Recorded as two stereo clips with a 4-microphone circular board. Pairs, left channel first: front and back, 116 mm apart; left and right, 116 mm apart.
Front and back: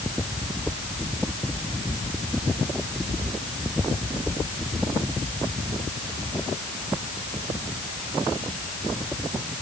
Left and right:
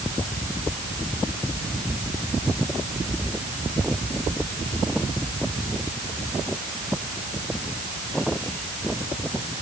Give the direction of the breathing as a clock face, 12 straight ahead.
No breathing in this recording.